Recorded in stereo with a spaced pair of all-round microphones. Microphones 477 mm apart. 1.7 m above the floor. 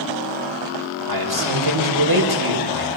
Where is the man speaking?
50° right (ahead or behind), 5.5 m.